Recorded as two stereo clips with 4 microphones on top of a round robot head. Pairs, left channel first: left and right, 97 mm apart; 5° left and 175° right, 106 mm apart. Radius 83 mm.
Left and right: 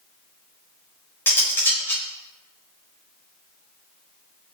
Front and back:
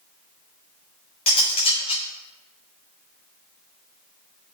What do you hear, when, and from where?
1.3 s cutlery clinking: 25° left, 6.5 m